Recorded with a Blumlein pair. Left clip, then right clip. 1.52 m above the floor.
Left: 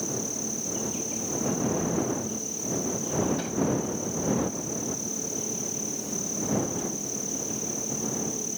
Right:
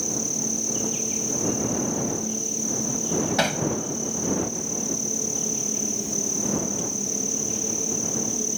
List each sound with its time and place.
0.0 s an insect: 20° right
3.4 s hammering: 40° right